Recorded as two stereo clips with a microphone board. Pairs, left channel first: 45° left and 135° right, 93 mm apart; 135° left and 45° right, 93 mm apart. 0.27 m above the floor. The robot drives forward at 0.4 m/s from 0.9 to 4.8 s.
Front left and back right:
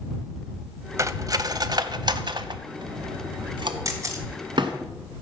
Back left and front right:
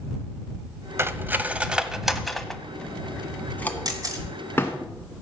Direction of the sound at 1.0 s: 95° right.